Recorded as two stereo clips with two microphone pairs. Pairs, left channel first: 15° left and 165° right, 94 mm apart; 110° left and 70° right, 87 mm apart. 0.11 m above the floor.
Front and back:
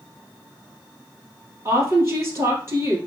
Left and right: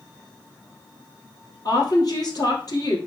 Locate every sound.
1.6 s a woman speaking: 140° left, 3 m